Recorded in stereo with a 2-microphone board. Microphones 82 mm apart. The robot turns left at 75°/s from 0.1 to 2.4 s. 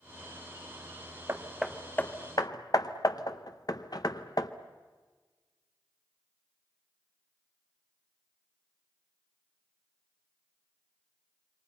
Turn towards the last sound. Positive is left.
turn(degrees=50)  # may be behind; listen again after turning